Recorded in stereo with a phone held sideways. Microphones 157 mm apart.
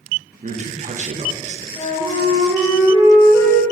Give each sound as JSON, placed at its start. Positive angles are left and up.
{"t": 0.4, "sound": "a man speaking", "side_deg": -50, "distance_m": 0.5}
{"t": 1.8, "sound": "a flute", "side_deg": 20, "distance_m": 1.5}